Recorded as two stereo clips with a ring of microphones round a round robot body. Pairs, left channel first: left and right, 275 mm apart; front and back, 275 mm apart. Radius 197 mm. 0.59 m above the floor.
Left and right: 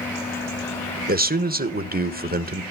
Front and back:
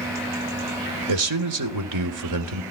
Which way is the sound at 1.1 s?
150° right.